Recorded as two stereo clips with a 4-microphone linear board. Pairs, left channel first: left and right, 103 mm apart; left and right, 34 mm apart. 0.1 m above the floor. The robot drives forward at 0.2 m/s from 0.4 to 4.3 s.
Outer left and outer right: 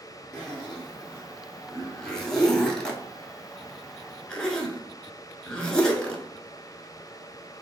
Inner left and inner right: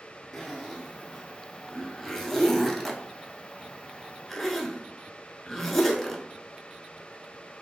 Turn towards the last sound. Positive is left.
turn(degrees=10)  # may be behind; listen again after turning